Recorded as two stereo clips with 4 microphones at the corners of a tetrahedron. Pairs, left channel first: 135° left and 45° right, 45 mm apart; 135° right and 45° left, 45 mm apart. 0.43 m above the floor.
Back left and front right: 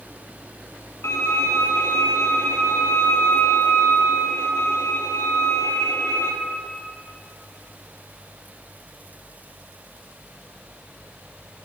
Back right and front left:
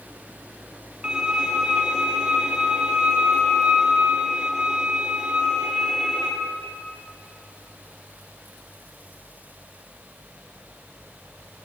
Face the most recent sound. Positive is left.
turn(degrees=115)